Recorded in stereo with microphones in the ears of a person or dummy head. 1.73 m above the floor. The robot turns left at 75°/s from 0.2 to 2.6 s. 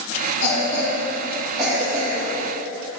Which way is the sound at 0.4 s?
80° left.